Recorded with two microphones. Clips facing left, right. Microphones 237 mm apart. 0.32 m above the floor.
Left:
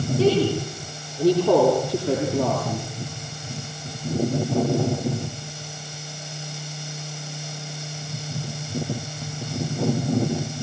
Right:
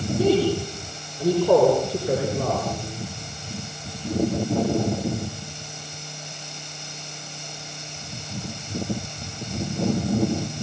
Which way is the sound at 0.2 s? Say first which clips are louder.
Even; 80° left.